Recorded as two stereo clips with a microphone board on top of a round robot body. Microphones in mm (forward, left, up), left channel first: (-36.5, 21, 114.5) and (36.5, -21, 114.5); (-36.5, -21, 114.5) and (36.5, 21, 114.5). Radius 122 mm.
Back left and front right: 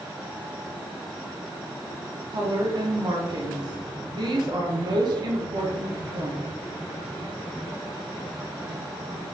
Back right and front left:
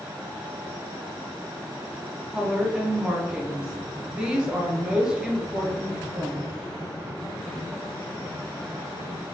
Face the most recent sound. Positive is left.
turn(degrees=-45)